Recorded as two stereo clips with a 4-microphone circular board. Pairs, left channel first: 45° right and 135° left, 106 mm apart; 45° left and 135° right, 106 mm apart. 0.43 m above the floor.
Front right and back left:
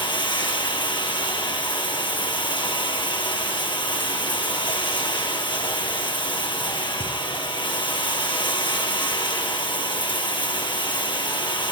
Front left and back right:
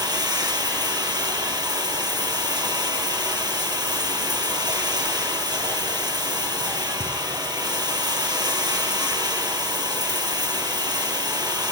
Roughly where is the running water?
Right.